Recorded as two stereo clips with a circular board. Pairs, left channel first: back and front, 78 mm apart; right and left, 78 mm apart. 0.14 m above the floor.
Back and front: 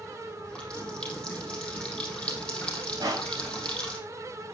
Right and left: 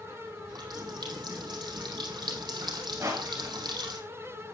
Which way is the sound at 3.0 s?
30° left.